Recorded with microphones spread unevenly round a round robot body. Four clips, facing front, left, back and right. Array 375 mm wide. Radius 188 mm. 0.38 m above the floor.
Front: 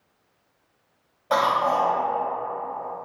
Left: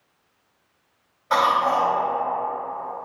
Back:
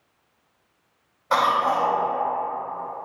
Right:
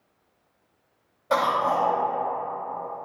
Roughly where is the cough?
Ahead right.